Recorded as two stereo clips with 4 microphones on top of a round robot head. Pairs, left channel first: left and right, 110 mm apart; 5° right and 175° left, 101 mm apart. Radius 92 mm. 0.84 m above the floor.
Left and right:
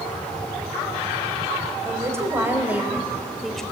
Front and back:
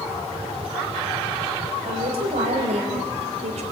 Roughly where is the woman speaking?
Behind right.